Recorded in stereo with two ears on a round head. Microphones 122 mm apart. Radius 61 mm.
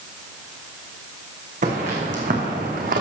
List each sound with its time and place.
1.6 s footsteps: 60° right (ahead or behind), 3 m; by 3.0 s 65° right (ahead or behind), 2 m